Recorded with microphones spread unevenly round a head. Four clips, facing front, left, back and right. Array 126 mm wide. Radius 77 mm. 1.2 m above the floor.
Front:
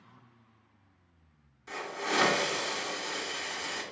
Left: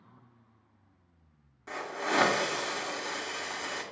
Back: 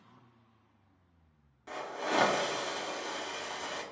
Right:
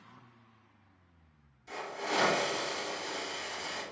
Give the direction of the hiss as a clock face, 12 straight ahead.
8 o'clock.